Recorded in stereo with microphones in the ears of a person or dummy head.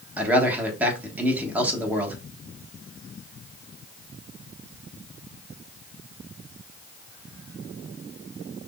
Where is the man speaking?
10° right (ahead or behind), 1.5 m.